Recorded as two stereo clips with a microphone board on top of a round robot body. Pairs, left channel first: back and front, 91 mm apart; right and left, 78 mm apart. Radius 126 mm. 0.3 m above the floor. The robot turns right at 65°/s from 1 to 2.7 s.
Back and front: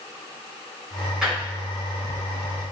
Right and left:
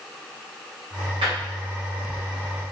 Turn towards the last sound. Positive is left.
turn(degrees=175)